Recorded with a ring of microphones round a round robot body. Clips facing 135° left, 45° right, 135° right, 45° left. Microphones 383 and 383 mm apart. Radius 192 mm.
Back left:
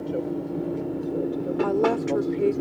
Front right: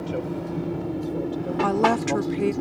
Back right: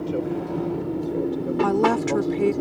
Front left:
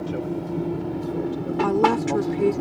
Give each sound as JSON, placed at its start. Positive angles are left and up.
{"t": 0.0, "sound": "an aircraft", "azimuth_deg": -25}
{"t": 1.6, "sound": "a woman speaking", "azimuth_deg": -55}